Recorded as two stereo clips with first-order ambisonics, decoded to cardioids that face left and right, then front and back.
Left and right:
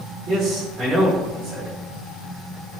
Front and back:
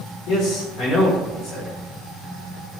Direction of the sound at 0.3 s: 30° right.